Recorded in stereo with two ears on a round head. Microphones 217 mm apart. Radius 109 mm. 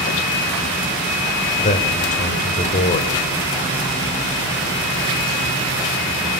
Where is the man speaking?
35° left (ahead or behind), 3.5 m.